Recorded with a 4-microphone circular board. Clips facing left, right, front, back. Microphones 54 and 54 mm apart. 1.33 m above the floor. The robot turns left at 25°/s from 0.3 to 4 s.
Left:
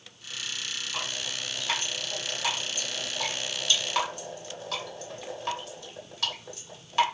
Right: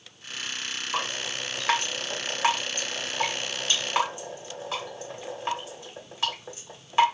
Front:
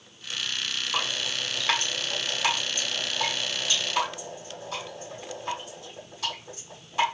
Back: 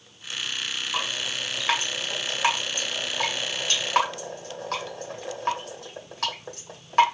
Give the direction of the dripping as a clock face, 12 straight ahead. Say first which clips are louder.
Right 7 dB, even; 3 o'clock.